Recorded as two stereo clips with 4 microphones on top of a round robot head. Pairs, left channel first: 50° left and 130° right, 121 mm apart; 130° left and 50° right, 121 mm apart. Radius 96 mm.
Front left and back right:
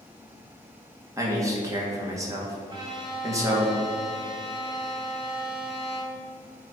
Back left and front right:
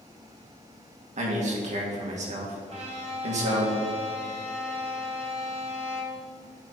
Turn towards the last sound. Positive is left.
turn(degrees=-80)